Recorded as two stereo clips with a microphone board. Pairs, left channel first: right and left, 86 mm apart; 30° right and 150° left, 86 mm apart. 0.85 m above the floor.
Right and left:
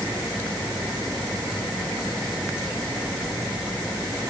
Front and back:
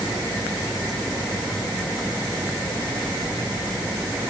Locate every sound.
Only background noise.